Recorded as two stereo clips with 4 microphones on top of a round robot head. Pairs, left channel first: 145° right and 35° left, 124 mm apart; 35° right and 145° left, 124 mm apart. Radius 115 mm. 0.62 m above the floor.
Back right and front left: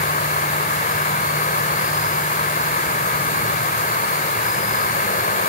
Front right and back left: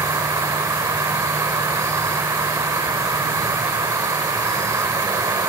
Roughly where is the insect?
Behind right.